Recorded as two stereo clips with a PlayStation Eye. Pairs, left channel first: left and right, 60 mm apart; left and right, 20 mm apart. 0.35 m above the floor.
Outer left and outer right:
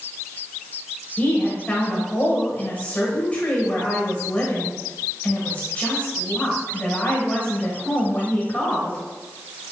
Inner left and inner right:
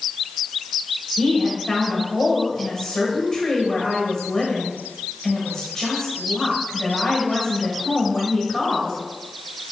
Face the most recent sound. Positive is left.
turn(degrees=30)  # may be behind; listen again after turning